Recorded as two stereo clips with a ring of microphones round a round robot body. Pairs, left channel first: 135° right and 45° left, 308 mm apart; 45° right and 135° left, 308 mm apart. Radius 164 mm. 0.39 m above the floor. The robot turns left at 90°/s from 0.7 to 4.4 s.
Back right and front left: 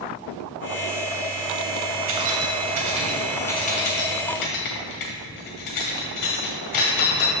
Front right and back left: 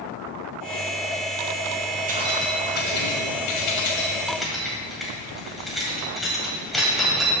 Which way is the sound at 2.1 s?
75° left.